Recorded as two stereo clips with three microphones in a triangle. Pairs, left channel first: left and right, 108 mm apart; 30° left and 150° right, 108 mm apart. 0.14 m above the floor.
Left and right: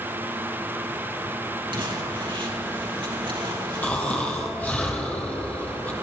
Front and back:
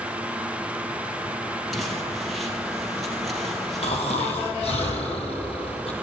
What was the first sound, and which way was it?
Crumpling, 60° right.